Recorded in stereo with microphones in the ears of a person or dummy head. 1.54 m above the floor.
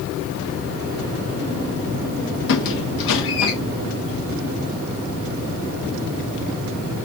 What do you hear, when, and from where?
2.5 s a squeak: 60° left (ahead or behind), 0.7 m